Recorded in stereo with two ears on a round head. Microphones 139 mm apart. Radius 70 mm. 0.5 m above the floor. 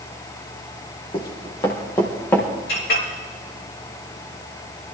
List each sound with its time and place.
1.1 s running footsteps: 30° left (ahead or behind), 4 m; by 2.5 s 15° left (ahead or behind), 4 m
2.7 s a clink: 75° left (ahead or behind), 5.5 m